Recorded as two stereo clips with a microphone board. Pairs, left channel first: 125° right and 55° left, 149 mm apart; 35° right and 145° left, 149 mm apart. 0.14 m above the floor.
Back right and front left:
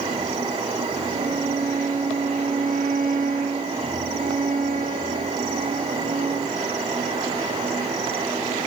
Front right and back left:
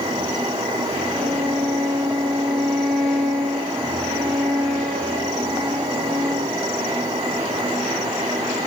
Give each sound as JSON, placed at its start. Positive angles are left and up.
{"t": 1.1, "sound": "a violin", "azimuth_deg": 55, "distance_m": 6.0}